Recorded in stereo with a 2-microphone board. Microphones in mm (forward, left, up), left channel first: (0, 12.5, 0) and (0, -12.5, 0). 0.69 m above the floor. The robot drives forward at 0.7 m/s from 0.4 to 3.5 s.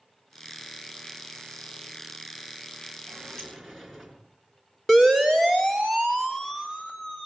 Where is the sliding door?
15° left (ahead or behind), 3 m; by 4.2 s 10° left (ahead or behind), 3.5 m.